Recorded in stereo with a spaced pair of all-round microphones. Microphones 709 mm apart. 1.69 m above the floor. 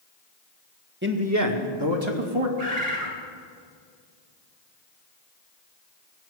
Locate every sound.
1.0 s a man speaking: 15° right (ahead or behind), 1.6 m; by 2.5 s 50° right (ahead or behind), 1.7 m
2.6 s a bird: 60° right (ahead or behind), 2.5 m